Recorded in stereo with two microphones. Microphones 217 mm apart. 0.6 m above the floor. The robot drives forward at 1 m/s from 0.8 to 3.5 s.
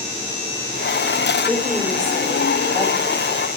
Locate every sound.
1.5 s a woman speaking: 5° left (ahead or behind), 2.5 m; by 3.0 s centre (ahead or behind), 4 m